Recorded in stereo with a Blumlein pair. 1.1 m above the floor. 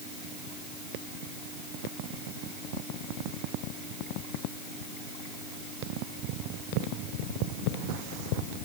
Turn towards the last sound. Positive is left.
No sound to turn to.